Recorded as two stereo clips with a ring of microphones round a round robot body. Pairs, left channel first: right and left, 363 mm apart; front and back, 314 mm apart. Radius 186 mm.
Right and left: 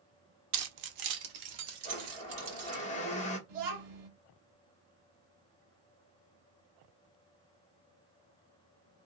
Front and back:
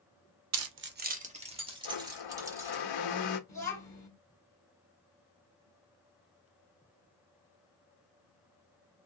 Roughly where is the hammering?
I don't hear hammering.